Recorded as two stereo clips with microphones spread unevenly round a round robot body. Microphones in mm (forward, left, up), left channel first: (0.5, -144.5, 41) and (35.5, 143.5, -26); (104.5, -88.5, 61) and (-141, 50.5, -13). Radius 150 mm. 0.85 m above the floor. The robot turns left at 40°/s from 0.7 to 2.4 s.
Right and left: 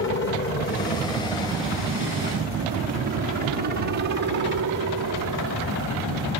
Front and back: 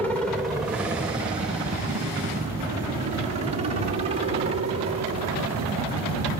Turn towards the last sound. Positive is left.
turn(degrees=95)